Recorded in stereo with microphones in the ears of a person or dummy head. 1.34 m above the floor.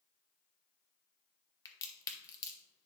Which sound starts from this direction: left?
A crack, at 1.6 s.